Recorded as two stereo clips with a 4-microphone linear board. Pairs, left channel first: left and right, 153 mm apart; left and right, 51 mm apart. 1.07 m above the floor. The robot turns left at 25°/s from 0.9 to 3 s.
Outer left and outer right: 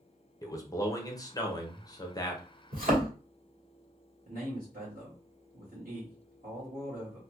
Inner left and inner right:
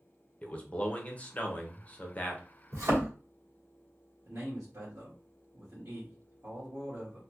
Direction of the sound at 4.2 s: 70° right (ahead or behind).